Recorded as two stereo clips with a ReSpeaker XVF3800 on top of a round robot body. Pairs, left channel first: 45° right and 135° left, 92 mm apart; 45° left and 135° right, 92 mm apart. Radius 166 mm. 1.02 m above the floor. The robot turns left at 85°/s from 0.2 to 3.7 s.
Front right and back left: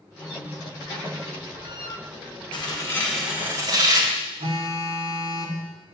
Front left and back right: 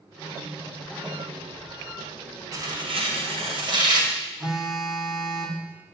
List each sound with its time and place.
2.5 s tearing paper: 75° right, 2.5 m; by 4.1 s 175° right, 2.5 m
4.4 s a phone buzzing: 145° left, 1.5 m